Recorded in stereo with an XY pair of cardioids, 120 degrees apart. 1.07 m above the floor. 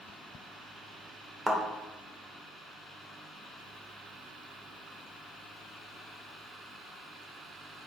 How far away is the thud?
About 1.7 m.